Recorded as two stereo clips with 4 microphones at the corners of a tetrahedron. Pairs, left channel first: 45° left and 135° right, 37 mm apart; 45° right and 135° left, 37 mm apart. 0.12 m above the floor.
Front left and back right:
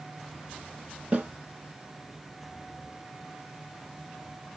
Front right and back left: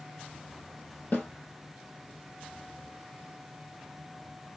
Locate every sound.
1.1 s a snare drum: 75° right, 3 m